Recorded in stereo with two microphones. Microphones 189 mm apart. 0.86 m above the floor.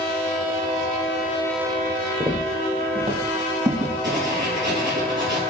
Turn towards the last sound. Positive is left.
turn(degrees=-70)  # may be behind; listen again after turning